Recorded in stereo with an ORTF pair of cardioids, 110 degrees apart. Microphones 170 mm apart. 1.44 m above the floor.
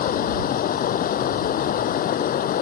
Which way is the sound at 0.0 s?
55° left.